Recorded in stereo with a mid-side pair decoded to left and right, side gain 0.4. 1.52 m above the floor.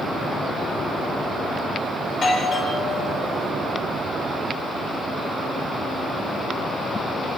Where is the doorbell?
60° left, 9 m.